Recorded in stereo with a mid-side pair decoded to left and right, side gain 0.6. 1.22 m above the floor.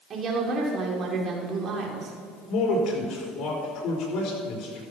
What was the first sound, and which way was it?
A woman speaking, 45° right.